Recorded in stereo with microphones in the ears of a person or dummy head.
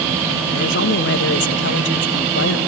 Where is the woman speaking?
65° left (ahead or behind), 1.5 m.